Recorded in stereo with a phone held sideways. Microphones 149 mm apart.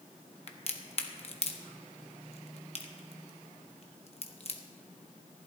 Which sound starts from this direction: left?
A crack, at 0.5 s.